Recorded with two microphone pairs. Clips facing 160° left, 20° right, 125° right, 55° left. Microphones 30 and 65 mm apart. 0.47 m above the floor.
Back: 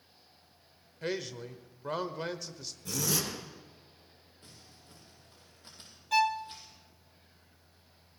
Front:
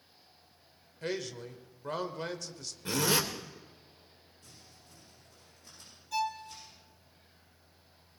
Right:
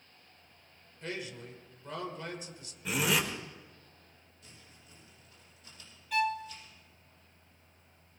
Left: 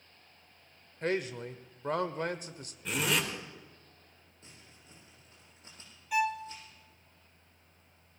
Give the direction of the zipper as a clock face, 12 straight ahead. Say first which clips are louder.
Front 4 dB, right 1 dB; 1 o'clock.